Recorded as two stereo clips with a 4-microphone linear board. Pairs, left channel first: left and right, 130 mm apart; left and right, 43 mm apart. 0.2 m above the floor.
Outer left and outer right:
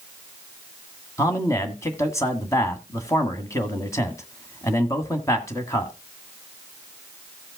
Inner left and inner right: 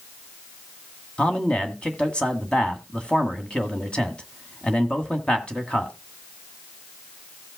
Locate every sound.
1.2 s a man speaking: 25° left (ahead or behind), 1.9 m